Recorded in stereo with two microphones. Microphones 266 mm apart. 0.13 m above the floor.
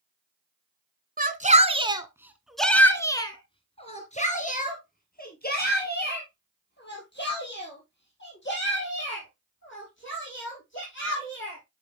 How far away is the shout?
About 1.3 m.